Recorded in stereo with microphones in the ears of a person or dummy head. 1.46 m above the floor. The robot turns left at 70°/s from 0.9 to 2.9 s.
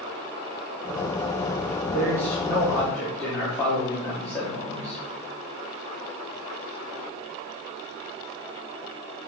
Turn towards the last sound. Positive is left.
turn(degrees=175)